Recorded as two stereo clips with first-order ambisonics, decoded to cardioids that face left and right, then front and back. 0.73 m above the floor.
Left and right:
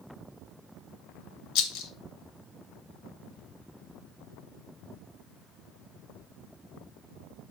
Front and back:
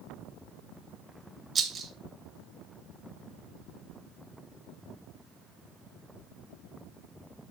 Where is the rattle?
110° left, 1.1 m.